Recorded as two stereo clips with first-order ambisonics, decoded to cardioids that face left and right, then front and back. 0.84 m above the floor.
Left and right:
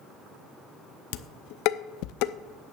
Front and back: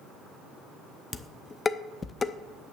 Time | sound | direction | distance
1.1 | dishes clattering | 75° left | 0.5 m